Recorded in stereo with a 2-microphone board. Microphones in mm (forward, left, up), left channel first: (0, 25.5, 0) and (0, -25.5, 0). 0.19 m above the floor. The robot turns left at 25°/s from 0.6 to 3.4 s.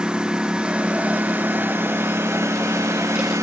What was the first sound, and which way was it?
A lawn mower, 15° right.